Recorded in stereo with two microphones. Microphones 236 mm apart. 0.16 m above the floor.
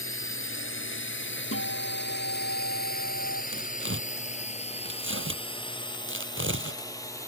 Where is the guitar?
65° left (ahead or behind).